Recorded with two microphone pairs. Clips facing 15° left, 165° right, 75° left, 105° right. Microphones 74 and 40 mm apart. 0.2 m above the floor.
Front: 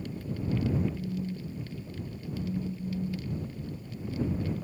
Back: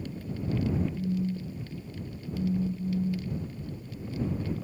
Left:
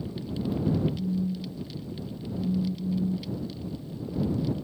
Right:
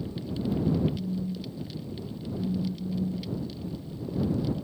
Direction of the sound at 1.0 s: 135° left.